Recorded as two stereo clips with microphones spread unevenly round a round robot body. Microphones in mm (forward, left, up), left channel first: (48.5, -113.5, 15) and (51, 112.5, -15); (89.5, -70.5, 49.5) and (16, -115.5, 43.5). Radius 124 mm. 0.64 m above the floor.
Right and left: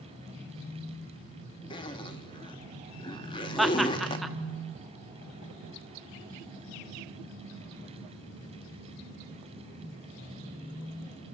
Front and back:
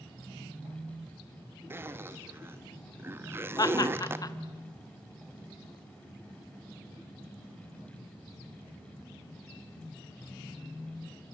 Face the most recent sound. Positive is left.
turn(degrees=10)